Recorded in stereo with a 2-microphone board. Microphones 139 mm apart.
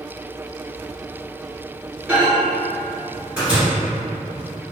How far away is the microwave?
About 1.5 m.